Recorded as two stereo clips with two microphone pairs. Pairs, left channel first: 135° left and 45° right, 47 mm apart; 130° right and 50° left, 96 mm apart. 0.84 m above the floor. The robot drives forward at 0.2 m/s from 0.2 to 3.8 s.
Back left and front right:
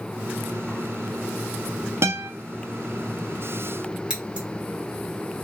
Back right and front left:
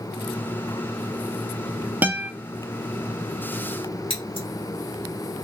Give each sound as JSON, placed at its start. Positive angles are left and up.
{"t": 2.0, "sound": "a guitar", "azimuth_deg": -25, "distance_m": 0.6}
{"t": 4.1, "sound": "scissors", "azimuth_deg": -120, "distance_m": 1.6}